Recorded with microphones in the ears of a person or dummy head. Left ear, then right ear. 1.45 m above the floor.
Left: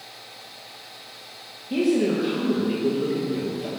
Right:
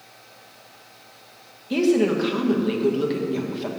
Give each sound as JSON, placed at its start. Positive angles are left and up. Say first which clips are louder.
{"t": 1.7, "sound": "a woman speaking", "louder": "right 2 dB", "side_deg": -40, "distance_m": 1.2}